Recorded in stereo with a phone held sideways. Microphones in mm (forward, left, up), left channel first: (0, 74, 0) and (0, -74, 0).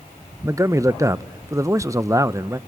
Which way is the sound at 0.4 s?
20° right (ahead or behind).